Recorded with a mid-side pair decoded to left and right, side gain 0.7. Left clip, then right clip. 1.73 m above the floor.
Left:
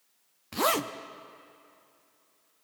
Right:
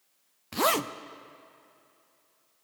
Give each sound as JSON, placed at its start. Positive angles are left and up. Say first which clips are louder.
{"t": 0.5, "sound": "a zipper", "louder": "right 1 dB", "azimuth_deg": -10, "distance_m": 0.5}